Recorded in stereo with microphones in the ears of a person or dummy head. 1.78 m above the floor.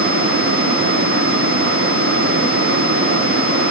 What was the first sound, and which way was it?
Only background noise.